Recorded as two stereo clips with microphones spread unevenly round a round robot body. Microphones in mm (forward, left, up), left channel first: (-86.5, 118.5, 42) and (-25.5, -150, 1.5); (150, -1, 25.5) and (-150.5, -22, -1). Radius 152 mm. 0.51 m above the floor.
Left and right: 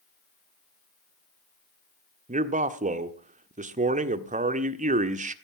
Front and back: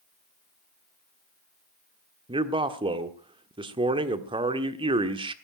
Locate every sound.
2.3 s a man speaking: 115° right, 1.3 m